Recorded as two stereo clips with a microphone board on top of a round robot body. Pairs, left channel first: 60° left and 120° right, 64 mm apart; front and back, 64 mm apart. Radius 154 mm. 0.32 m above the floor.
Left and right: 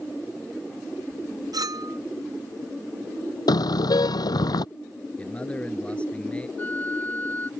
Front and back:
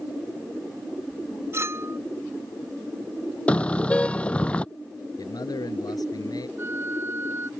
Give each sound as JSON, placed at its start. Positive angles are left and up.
{"t": 1.5, "sound": "a clink", "azimuth_deg": -135}
{"t": 3.5, "sound": "a car horn", "azimuth_deg": 70}
{"t": 5.2, "sound": "a man speaking", "azimuth_deg": -15}
{"t": 6.6, "sound": "a flute", "azimuth_deg": 125}